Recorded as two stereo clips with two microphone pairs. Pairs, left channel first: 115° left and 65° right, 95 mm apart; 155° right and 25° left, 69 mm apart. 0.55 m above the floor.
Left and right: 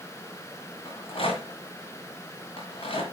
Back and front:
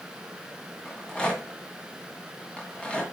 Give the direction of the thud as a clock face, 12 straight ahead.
I don't hear a thud.